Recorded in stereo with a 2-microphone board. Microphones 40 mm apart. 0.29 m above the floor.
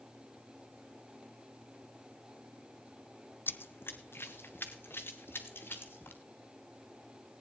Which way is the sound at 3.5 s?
65° left (ahead or behind).